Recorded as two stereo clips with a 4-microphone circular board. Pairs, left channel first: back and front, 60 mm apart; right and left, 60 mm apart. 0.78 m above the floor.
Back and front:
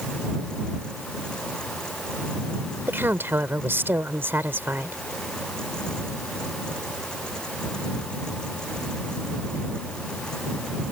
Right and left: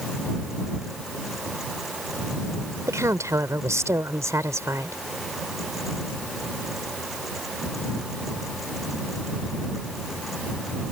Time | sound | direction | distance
2.9 | a woman speaking | 55° left | ?